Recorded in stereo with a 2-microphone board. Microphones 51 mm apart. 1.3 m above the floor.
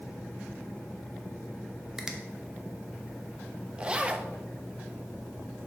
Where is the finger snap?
10° right (ahead or behind), 0.9 m.